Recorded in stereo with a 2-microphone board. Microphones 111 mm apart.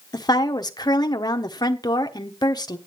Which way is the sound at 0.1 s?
35° left (ahead or behind).